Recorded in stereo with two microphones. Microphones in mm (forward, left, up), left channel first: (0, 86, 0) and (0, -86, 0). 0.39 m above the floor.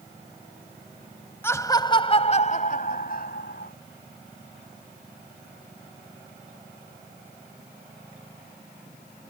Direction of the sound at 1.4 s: 15° left (ahead or behind).